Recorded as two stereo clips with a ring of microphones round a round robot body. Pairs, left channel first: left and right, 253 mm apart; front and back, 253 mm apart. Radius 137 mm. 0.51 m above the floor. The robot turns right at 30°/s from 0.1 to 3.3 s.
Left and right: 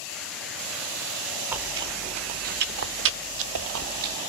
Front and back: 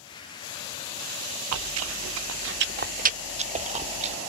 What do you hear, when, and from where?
1.5 s chewing: 175° right, 0.6 m; by 4.2 s 120° right, 0.6 m